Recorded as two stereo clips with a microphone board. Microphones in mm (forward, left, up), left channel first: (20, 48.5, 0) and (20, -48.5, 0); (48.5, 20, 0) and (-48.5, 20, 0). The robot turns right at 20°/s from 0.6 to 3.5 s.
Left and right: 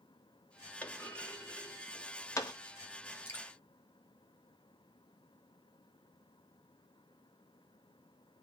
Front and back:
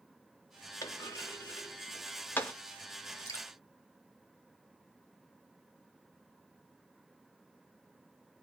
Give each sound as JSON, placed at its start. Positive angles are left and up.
{"t": 0.8, "sound": "a clunk", "azimuth_deg": 25, "distance_m": 0.6}
{"t": 3.2, "sound": "dripping", "azimuth_deg": 30, "distance_m": 1.1}